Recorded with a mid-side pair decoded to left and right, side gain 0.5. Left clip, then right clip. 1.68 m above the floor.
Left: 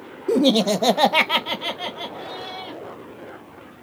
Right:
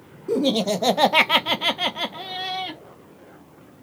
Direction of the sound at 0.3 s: 35° left.